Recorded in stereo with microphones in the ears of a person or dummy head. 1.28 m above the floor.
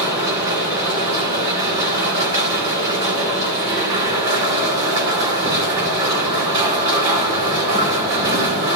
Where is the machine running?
25° right (ahead or behind), 2.5 m.